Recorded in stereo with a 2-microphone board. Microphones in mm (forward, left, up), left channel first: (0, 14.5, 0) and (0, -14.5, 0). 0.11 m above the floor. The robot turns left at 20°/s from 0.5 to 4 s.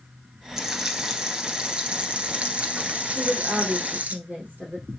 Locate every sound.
0.6 s frying: 20° right, 1.0 m; by 4.2 s 90° right, 1.0 m
3.1 s a woman speaking: 75° right (ahead or behind), 4 m; by 4.9 s 60° right (ahead or behind), 4 m